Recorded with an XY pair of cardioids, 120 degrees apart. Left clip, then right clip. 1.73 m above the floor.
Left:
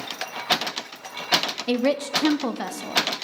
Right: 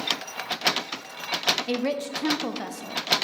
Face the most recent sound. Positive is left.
turn(degrees=25)